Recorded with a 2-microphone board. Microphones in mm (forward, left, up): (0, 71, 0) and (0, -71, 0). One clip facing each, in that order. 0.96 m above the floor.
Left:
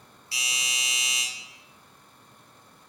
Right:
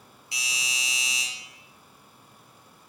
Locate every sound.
0.3 s a doorbell: 20° right (ahead or behind), 0.6 m